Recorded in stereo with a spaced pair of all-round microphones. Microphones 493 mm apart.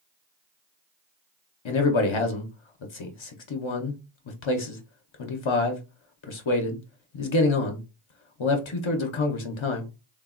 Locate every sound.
1.6 s a man speaking: 70° left (ahead or behind), 0.5 m